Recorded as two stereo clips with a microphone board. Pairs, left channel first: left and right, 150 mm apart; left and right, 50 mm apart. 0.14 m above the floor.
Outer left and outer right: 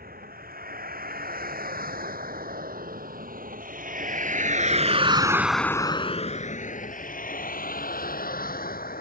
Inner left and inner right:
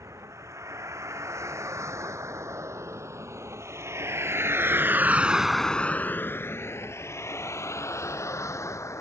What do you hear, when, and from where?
0.0 s a vehicle: 85° right; by 9.0 s 80° left